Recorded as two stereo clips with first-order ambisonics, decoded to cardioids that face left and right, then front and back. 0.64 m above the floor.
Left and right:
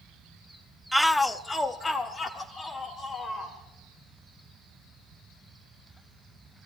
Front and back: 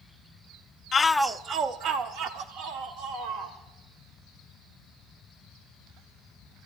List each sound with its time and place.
0.9 s a shout: straight ahead, 0.5 m; by 3.6 s 160° left, 2 m